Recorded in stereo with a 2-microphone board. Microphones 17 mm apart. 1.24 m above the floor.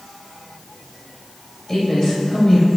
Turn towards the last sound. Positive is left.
turn(degrees=35)  # may be behind; listen again after turning